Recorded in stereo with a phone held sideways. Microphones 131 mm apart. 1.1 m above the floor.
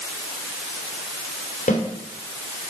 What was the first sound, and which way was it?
A snare drum, 80° left.